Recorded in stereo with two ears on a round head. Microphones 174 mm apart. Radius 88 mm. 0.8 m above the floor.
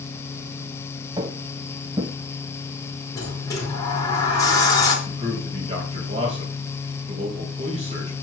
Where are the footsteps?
20° right (ahead or behind), 1.1 m.